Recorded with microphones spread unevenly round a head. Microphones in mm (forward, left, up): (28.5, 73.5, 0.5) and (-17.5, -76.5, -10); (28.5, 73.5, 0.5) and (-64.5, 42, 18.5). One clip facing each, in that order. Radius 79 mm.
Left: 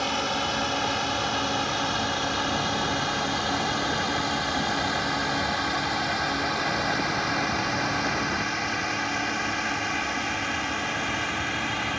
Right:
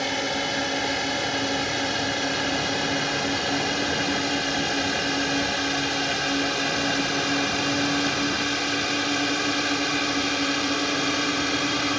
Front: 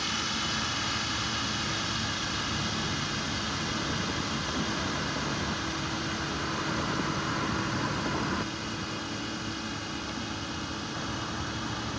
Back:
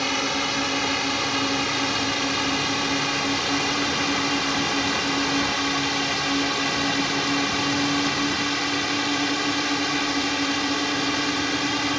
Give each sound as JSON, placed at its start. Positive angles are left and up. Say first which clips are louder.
{"t": 0.0, "sound": "a drone", "louder": "right 1 dB, back 8 dB", "azimuth_deg": 180}